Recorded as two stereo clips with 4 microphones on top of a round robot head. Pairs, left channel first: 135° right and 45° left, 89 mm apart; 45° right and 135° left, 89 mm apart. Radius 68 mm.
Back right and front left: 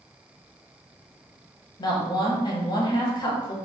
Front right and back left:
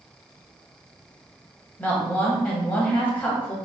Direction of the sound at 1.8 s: 110° right.